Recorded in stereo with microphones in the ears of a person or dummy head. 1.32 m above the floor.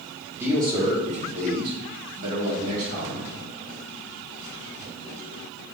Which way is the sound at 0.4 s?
15° right (ahead or behind).